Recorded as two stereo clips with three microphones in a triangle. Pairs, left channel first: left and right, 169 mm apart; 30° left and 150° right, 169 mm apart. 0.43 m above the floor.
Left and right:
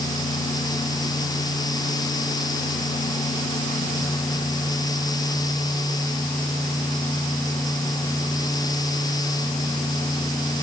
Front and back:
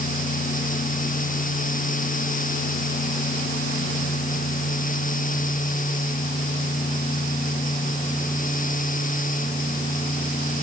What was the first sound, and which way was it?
Only background noise.